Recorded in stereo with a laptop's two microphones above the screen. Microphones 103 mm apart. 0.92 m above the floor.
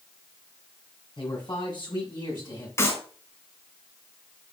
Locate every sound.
1.2 s a man speaking: 50° left (ahead or behind), 5.5 m; by 2.7 s 40° left (ahead or behind), 6.5 m
2.8 s a clap: 25° left (ahead or behind), 5.5 m